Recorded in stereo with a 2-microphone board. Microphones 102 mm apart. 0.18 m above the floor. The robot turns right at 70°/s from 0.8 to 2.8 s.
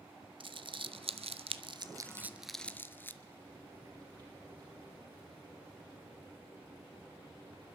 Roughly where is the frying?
Right.